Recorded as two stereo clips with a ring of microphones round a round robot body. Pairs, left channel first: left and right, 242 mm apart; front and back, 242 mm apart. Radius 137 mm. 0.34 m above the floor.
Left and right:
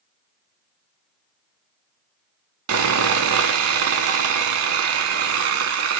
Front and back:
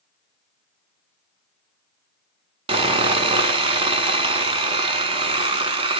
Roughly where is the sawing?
Right.